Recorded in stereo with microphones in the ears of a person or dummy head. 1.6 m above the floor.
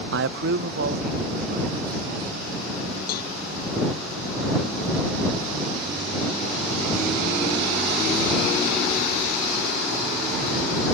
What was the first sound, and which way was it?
A man speaking, 65° right (ahead or behind).